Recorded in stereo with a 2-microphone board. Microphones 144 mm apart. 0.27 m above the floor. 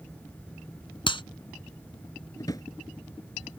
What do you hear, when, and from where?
1.1 s a clap: 35° left (ahead or behind)
2.4 s a drawer: 25° left (ahead or behind)